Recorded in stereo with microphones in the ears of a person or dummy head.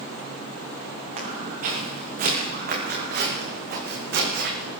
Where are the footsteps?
45° right (ahead or behind), 6.5 m; by 4.7 s 70° right (ahead or behind), 5 m.